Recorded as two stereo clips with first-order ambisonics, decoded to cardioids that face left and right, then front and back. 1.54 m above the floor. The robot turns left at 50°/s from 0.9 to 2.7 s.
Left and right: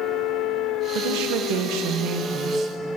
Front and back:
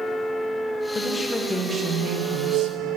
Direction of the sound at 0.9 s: 70° right.